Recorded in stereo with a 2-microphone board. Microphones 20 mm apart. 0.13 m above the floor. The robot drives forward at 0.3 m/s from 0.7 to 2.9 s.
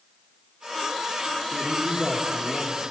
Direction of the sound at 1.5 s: 20° left (ahead or behind).